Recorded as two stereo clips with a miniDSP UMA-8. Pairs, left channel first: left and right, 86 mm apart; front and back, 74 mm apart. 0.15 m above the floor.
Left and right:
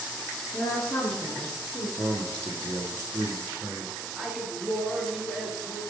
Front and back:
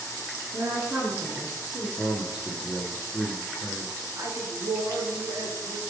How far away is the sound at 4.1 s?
About 2.5 m.